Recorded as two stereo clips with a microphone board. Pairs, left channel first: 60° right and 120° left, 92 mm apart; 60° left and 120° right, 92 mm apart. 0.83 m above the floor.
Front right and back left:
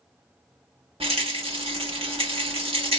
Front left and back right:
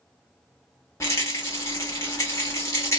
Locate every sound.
1.0 s a rattle: 120° left, 1.2 m